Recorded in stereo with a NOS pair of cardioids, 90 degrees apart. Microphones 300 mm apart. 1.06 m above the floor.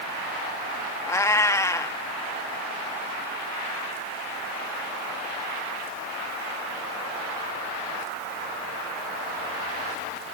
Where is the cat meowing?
10° left.